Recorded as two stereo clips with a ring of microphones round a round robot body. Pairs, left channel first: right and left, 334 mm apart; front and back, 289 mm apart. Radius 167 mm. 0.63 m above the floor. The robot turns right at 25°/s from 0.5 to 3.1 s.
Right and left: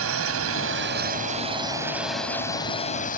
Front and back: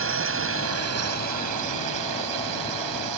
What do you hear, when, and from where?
0.0 s a drone: 140° left; by 3.2 s 155° right